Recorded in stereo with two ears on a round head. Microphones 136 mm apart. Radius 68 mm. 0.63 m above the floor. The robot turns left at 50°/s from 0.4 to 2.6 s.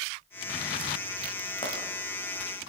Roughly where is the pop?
Left.